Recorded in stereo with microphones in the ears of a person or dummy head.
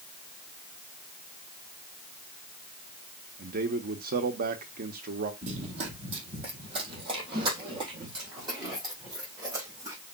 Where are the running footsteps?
40° right (ahead or behind), 2.5 m; by 10.0 s 20° right (ahead or behind), 5 m.